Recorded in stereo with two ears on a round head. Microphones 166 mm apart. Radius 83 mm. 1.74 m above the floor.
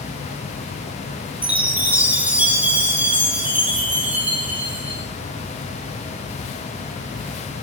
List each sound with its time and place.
1.4 s a chime: 10° right (ahead or behind), 5 m